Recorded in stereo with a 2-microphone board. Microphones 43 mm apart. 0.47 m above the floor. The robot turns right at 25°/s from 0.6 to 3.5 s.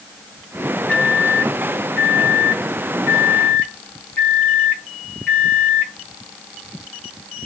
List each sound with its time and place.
0.9 s a microwave: 50° left, 1.5 m; by 5.9 s 115° left, 1.5 m